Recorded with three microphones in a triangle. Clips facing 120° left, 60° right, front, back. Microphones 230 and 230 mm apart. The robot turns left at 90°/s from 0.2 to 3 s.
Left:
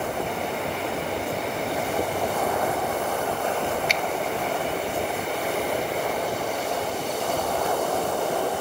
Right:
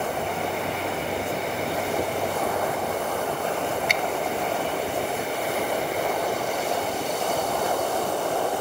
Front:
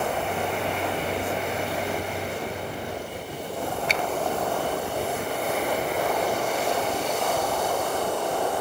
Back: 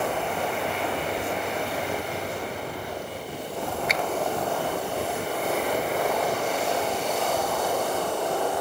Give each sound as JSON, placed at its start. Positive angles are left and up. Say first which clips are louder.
{"t": 3.9, "sound": "a finger snap", "louder": "even, back 1 dB", "azimuth_deg": -55, "distance_m": 0.6}